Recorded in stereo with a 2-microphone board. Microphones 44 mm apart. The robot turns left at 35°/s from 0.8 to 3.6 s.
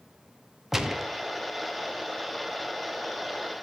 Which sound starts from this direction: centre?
A gunshot, at 0.7 s.